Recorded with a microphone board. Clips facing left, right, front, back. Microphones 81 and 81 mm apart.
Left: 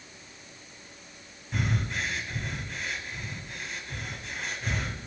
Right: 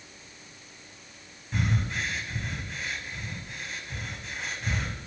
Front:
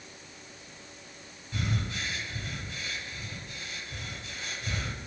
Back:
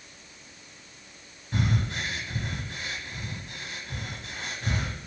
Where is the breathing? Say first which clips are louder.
Right 1 dB, back 5 dB; straight behind, 1.2 m.